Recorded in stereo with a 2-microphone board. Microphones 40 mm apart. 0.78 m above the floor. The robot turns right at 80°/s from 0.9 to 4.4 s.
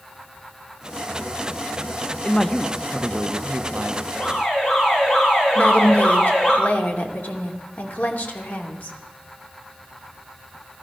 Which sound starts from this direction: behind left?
A man speaking, at 2.2 s.